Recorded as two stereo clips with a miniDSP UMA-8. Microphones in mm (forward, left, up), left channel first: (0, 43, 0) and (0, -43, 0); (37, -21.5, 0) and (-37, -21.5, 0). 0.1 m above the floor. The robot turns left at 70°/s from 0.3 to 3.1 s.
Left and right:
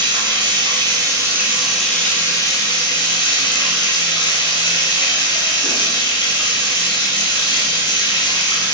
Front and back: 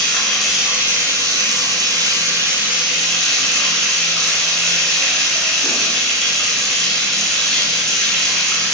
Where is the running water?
75° right, 1.0 m; by 8.7 s 85° left, 1.0 m.